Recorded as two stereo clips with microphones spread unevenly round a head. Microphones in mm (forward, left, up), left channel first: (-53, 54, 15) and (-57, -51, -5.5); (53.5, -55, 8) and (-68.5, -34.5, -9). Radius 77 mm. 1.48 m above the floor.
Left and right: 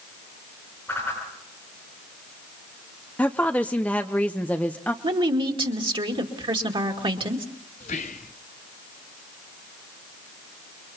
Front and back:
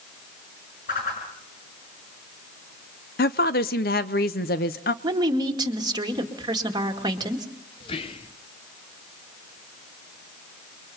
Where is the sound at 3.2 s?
5° left, 0.7 m.